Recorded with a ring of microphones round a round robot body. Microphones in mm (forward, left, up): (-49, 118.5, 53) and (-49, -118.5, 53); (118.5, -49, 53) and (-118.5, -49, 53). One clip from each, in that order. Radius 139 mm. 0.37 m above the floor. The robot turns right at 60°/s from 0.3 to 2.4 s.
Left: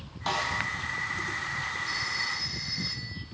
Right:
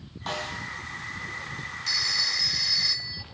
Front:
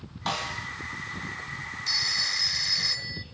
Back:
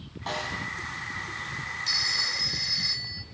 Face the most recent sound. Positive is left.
turn(degrees=-50)